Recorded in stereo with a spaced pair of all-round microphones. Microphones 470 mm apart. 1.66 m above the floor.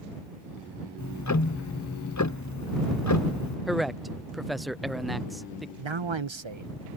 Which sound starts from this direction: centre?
A man speaking, at 3.7 s.